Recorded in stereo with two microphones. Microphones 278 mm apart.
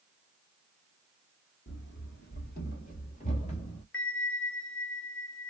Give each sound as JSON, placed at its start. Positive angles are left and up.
{"t": 1.7, "sound": "running footsteps", "side_deg": 40, "distance_m": 1.3}
{"t": 3.9, "sound": "a bell", "side_deg": 50, "distance_m": 0.6}